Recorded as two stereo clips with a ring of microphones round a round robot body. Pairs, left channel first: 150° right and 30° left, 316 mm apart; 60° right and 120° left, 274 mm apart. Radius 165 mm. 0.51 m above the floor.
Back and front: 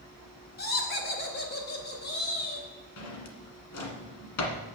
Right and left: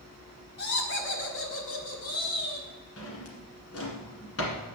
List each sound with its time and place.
0.6 s laughter: 100° right, 1.7 m; by 2.7 s 95° right, 3.5 m
3.0 s a drawer: 110° right, 1.5 m